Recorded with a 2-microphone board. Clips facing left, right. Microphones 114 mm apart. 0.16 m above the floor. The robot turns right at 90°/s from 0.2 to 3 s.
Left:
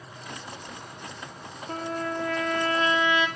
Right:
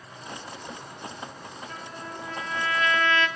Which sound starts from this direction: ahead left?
A trumpet, at 1.7 s.